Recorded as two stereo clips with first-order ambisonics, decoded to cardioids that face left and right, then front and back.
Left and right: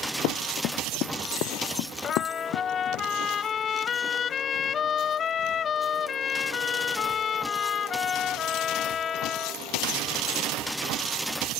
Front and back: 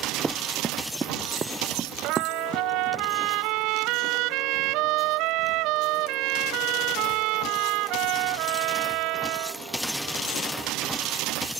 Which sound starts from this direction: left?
Running footsteps, at 0.2 s.